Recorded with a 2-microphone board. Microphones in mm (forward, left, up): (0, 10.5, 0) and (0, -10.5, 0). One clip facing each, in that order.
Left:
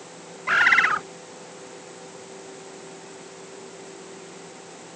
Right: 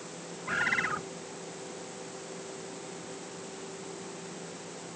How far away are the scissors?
No scissors in this recording.